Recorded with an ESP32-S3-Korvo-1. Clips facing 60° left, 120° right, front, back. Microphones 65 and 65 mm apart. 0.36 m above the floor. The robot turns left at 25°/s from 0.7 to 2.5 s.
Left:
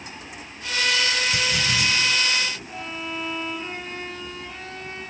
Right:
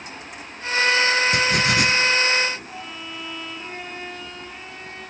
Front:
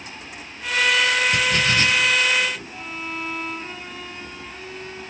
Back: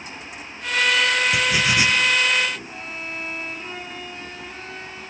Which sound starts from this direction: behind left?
A violin, at 2.7 s.